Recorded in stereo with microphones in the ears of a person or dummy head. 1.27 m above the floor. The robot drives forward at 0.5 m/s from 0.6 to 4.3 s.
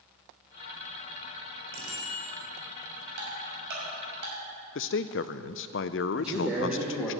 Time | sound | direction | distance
1.7 | a bicycle bell | 80° right | 4 m
3.2 | ticking | 70° right (ahead or behind) | 6 m
4.8 | a man speaking | 65° left (ahead or behind) | 0.6 m
6.1 | a man speaking | 5° right (ahead or behind) | 2 m